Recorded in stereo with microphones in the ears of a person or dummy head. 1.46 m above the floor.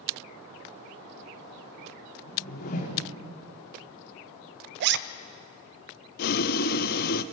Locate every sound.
2.3 s a whoosh: 50° left (ahead or behind), 3.5 m
4.8 s a zipper: 60° right (ahead or behind), 0.6 m
6.2 s boiling: 55° left (ahead or behind), 0.7 m